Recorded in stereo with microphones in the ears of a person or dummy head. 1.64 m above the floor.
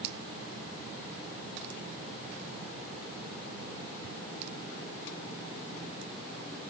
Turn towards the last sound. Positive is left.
No sound to turn to.